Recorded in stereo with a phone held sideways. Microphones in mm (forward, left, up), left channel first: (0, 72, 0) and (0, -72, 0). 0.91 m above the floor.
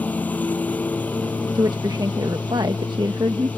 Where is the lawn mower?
10° left (ahead or behind).